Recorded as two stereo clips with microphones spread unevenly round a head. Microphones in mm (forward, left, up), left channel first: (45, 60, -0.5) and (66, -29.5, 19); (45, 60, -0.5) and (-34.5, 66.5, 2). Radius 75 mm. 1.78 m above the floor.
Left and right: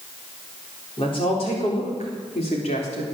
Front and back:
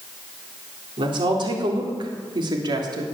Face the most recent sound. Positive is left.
turn(degrees=150)